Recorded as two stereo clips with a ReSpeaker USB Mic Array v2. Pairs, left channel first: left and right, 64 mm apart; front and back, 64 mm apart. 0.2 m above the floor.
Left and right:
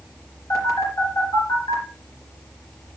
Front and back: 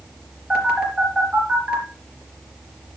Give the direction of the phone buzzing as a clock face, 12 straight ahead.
9 o'clock.